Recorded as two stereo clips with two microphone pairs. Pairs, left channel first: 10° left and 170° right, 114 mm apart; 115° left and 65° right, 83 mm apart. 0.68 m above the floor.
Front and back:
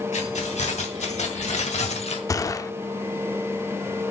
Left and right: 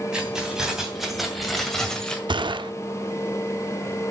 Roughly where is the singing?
I don't hear singing.